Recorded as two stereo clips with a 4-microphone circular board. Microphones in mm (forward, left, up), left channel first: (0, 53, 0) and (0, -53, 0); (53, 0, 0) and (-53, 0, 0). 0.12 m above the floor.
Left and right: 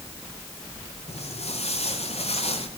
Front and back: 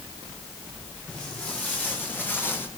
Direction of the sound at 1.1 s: 80° left.